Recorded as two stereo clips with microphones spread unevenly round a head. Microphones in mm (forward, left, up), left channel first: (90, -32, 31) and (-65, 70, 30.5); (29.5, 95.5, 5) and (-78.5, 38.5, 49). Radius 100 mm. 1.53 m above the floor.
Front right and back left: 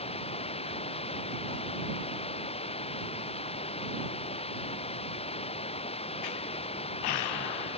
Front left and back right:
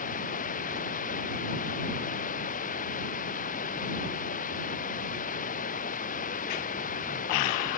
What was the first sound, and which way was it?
Running water, 25° left.